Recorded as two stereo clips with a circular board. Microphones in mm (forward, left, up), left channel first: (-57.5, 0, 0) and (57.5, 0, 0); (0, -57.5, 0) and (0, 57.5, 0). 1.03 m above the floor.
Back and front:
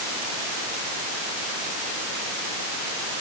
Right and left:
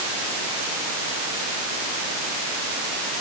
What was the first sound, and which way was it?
Only background noise.